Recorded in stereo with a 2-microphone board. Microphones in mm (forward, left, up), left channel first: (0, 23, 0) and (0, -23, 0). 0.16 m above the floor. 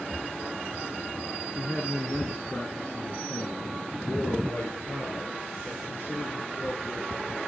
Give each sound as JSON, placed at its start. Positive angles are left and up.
{"t": 1.6, "sound": "a man speaking", "side_deg": 20, "distance_m": 1.5}